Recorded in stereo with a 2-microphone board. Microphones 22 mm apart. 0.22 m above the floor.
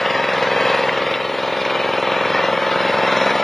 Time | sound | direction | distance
0.0 | an engine running | 20° left (ahead or behind) | ?